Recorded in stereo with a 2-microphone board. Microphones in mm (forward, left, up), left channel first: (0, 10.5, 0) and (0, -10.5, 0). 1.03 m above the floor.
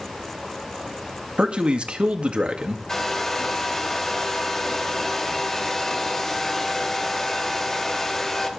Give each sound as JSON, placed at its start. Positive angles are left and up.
{"t": 1.4, "sound": "a man speaking", "side_deg": -65, "distance_m": 2.0}
{"t": 2.9, "sound": "a hair dryer", "side_deg": 20, "distance_m": 1.9}